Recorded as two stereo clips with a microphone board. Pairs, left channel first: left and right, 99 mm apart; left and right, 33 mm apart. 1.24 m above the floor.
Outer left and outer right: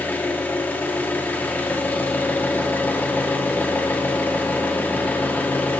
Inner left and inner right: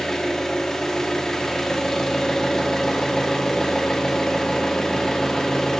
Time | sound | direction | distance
0.0 | an engine running | 20° left (ahead or behind) | 0.8 m